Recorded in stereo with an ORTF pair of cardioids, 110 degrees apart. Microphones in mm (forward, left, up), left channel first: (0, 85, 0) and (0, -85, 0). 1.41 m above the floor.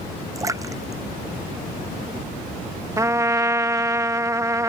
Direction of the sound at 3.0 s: 20° right.